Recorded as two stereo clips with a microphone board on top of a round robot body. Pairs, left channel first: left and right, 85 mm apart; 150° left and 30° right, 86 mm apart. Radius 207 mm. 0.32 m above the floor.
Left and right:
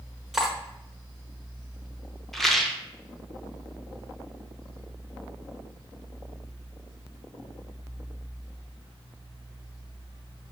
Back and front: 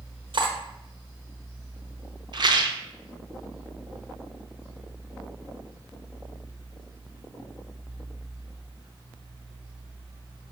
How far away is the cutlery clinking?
About 1.1 m.